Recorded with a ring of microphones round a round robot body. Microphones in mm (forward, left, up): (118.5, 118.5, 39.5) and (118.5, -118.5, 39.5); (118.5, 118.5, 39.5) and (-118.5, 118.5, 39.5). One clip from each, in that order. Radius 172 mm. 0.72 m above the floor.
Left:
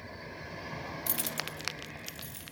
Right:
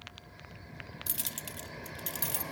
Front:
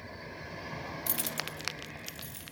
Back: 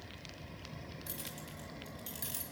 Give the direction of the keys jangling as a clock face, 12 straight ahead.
12 o'clock.